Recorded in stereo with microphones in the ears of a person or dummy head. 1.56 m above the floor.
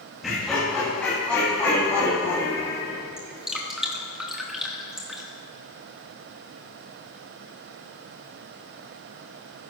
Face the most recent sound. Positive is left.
turn(degrees=-5)  # may be behind; listen again after turning